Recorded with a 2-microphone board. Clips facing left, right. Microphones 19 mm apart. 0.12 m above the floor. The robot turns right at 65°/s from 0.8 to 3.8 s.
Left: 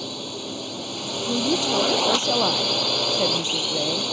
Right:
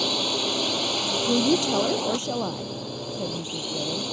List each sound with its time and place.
0.0 s a drone: 35° right; by 4.1 s 160° left
1.3 s a woman speaking: 30° right; by 4.0 s 135° left